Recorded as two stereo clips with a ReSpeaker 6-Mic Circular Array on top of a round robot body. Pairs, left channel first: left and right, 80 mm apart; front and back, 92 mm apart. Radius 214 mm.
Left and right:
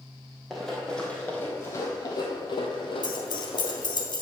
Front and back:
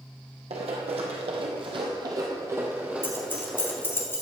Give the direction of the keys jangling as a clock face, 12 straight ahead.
10 o'clock.